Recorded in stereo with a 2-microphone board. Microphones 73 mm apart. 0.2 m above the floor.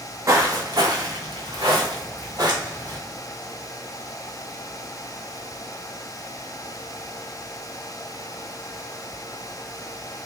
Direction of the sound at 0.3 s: 40° right (ahead or behind).